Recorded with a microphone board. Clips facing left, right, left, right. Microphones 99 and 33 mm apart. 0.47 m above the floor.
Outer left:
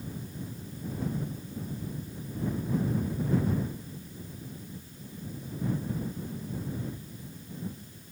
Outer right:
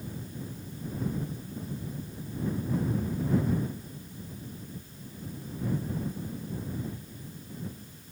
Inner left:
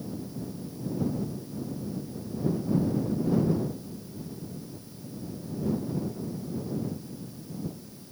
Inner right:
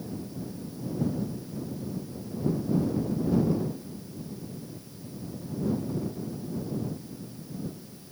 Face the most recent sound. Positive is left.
No sound to turn to.